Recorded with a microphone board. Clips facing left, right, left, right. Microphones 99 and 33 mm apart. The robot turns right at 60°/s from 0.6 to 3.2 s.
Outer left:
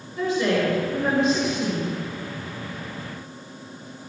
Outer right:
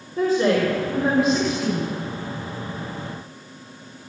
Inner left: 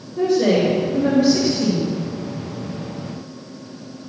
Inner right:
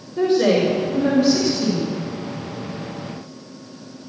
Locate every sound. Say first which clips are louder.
0.2 s a woman speaking: outer right 3 dB, even; 40° right, 4.5 m; by 1.9 s 35° left, 4.5 m